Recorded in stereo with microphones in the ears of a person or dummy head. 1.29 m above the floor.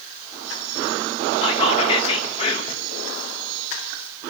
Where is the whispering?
30° left (ahead or behind), 1.5 m.